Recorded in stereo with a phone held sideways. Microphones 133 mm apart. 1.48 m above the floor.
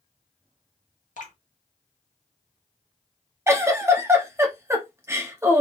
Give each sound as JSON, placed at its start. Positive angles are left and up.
{"t": 1.2, "sound": "dripping", "side_deg": 75, "distance_m": 1.4}
{"t": 3.5, "sound": "a giggle", "side_deg": -20, "distance_m": 1.1}